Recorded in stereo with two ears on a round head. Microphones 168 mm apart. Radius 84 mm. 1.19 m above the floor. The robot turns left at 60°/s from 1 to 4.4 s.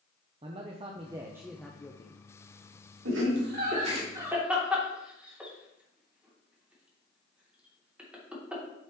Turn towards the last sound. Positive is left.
turn(degrees=-5)  # may be behind; listen again after turning